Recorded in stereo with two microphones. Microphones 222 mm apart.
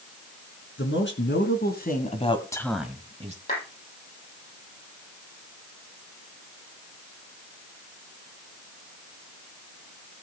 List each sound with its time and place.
0.8 s a man speaking: 60° left (ahead or behind), 3.5 m; by 3.4 s 35° right (ahead or behind), 1.6 m
3.5 s a clap: 45° left (ahead or behind), 8 m